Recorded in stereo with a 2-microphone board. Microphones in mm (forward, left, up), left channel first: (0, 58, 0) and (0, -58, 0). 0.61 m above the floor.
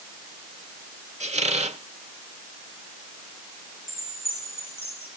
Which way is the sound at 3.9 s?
50° left (ahead or behind).